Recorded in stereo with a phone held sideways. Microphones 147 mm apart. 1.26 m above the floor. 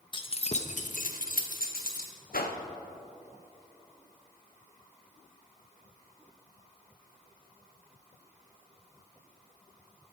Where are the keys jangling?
35° left (ahead or behind), 0.7 m; by 2.1 s 80° left, 1.3 m.